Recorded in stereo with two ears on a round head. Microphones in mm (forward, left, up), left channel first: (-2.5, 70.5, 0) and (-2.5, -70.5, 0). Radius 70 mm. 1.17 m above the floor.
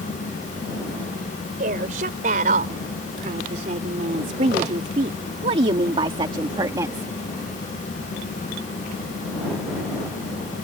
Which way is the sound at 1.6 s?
60° right (ahead or behind).